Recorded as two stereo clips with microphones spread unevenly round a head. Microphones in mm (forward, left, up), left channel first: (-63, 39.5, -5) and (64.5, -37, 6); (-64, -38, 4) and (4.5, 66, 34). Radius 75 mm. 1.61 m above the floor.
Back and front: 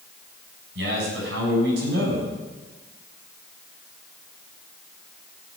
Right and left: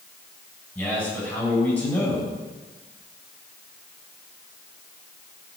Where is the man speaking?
40° right, 7 m.